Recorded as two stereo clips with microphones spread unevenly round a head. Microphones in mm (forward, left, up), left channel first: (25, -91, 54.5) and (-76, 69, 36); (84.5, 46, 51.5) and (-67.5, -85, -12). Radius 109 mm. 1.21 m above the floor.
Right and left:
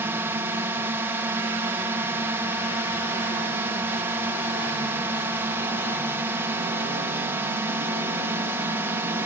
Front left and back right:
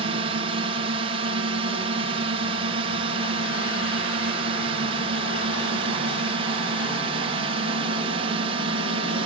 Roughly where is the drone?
Behind.